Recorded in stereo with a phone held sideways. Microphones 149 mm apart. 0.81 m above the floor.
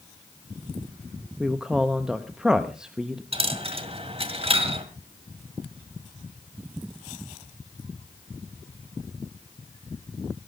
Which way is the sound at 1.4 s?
5° right (ahead or behind).